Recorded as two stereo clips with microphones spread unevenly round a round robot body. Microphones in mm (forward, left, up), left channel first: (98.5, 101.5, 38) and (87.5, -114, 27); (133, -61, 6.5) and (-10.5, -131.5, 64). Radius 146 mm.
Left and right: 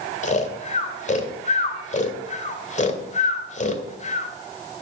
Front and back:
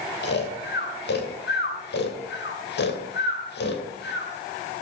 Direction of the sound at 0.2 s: 30° left.